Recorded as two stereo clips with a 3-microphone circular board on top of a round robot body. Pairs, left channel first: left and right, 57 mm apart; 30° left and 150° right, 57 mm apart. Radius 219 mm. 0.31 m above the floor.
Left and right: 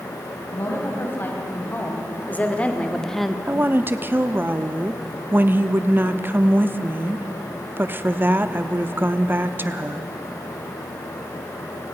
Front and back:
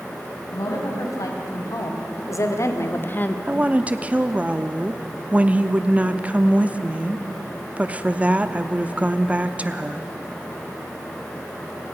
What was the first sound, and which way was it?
A woman speaking, 40° left.